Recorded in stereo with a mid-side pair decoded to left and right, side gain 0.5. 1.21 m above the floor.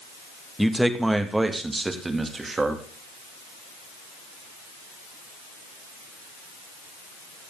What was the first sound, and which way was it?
A man speaking, 5° right.